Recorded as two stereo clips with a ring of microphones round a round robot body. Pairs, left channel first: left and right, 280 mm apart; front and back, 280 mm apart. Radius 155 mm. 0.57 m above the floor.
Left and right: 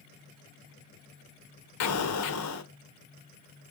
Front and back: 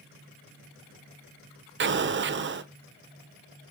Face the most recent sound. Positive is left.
turn(degrees=130)